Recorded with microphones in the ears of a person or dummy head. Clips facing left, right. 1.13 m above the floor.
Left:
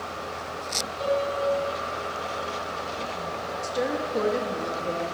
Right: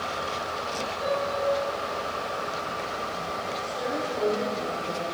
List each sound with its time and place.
1.0 s a piano: 60° left (ahead or behind), 3 m
3.6 s a woman speaking: 80° left, 1.3 m